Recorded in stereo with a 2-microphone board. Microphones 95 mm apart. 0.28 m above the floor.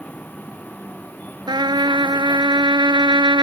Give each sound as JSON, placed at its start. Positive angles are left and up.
{"t": 0.0, "sound": "a vehicle", "side_deg": 15}
{"t": 1.5, "sound": "a trumpet", "side_deg": -50}